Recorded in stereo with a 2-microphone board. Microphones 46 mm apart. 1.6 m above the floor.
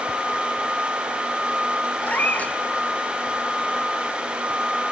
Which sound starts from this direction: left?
A cat meowing, at 2.0 s.